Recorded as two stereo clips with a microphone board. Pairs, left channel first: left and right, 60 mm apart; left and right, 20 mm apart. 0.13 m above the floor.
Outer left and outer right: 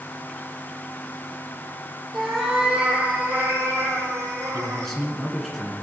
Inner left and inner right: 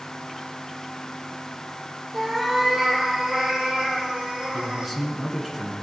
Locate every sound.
2.1 s a cat meowing: centre (ahead or behind), 1.6 m; by 4.9 s 60° right (ahead or behind), 2 m
4.5 s a man speaking: 5° left (ahead or behind), 1.3 m